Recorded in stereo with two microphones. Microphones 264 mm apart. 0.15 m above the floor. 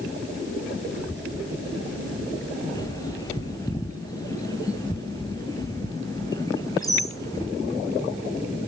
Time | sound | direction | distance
0.9 | a child speaking | 40° right (ahead or behind) | 6.5 m
2.7 | a bird | 15° left (ahead or behind) | 3 m